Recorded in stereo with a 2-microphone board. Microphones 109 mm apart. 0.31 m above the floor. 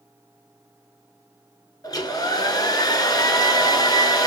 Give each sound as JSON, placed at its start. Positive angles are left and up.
{"t": 1.8, "sound": "a hair dryer", "side_deg": 35, "distance_m": 0.7}